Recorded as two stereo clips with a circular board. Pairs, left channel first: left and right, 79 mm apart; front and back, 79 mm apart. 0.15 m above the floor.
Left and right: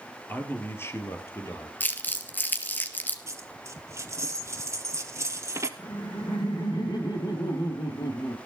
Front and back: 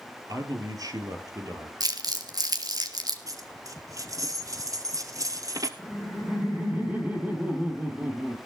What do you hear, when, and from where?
0.3 s a man speaking: 150° left, 3 m; by 1.7 s 140° left, 4.5 m
1.8 s crumpling: 155° left, 2.5 m
3.3 s a dropped coin: 140° right, 1.8 m
5.8 s laughter: 115° left, 3.5 m